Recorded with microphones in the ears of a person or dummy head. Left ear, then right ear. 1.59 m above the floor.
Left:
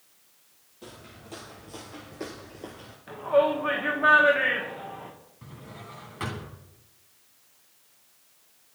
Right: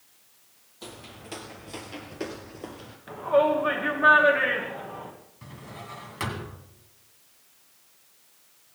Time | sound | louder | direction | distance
0.8 | footsteps | right 3 dB | 30° right (ahead or behind) | 2 m
3.1 | a shout | right 1 dB | 5° left (ahead or behind) | 1.5 m
5.4 | a drawer | right 3 dB | 20° right (ahead or behind) | 3 m